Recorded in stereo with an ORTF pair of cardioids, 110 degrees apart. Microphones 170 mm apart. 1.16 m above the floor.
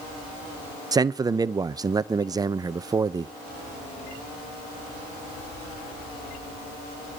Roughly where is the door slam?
I don't hear a door slam.